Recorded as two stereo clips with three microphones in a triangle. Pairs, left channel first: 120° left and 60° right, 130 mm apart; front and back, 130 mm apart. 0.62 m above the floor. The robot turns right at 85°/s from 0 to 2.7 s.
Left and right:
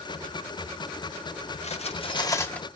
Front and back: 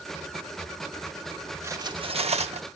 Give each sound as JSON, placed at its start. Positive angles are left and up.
{"t": 1.6, "sound": "cutlery clinking", "azimuth_deg": 115, "distance_m": 0.6}